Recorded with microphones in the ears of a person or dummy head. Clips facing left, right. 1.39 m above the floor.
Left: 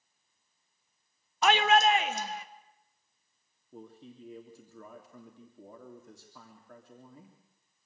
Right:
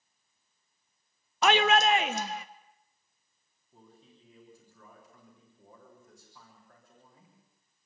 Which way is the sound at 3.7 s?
55° left (ahead or behind).